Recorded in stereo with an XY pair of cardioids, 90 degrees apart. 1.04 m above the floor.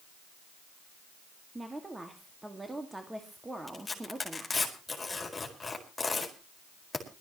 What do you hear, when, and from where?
1.6 s a woman speaking: 15° right, 2 m
3.7 s tearing paper: 25° left, 4.5 m